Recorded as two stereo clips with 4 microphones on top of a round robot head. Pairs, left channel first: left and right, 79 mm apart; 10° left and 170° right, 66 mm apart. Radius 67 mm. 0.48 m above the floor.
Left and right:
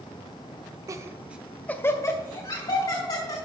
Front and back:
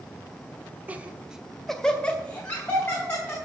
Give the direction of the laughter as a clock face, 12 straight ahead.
4 o'clock.